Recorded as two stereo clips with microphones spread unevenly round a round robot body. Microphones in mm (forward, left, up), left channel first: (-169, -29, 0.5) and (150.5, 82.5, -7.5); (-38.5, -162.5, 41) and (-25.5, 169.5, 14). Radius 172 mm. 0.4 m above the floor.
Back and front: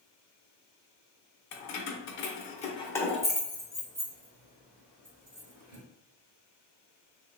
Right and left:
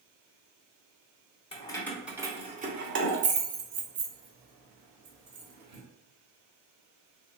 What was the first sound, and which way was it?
Keys jangling, 165° right.